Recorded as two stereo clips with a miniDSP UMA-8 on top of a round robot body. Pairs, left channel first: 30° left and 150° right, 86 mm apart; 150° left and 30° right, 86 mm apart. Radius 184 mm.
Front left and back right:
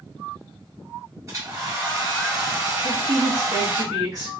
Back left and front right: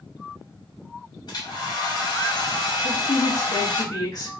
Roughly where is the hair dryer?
Behind.